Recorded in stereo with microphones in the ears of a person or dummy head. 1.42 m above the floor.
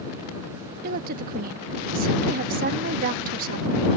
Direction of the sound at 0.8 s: 50° right (ahead or behind).